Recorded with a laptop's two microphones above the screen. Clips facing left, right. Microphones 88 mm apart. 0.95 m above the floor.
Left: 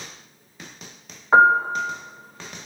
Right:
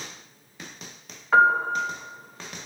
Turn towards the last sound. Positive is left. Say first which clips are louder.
# left 3 dB
turn(degrees=25)  # may be behind; listen again after turning